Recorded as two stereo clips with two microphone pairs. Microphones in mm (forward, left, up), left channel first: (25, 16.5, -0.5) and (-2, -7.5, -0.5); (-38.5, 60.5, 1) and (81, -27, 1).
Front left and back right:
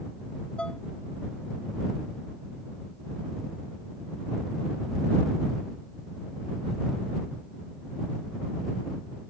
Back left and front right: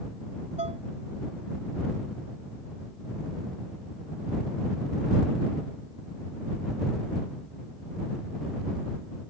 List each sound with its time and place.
0.6 s dishes clattering: 10° right